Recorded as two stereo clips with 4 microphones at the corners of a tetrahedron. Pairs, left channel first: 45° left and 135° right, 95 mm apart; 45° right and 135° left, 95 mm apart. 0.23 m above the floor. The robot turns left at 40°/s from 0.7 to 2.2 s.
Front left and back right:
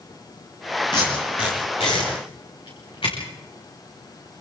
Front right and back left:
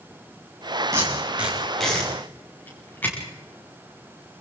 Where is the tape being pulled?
75° left, 8 m; by 3.2 s 25° left, 8 m.